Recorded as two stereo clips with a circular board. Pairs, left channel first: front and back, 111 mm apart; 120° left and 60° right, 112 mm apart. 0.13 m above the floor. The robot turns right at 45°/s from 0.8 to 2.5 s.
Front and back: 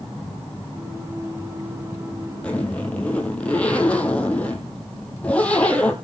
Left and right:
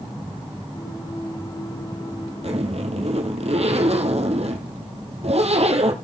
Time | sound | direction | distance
2.4 | a zipper | 80° right | 1.4 m